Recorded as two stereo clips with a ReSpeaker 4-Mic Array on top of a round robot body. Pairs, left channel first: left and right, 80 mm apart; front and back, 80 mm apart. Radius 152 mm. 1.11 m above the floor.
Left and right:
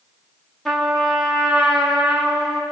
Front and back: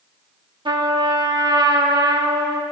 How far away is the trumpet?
About 2.5 m.